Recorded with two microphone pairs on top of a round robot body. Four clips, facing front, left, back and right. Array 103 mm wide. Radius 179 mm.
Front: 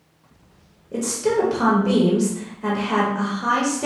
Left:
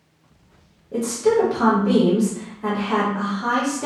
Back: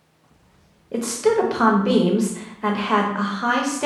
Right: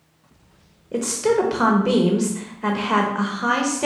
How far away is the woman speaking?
About 1.3 m.